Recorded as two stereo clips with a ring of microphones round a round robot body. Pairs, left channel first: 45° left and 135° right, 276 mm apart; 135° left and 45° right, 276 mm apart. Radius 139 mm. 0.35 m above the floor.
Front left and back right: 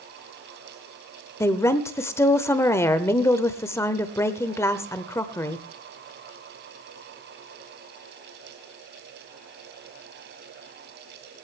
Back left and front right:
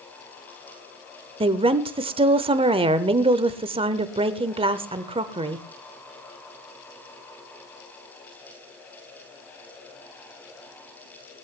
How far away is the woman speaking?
About 0.8 m.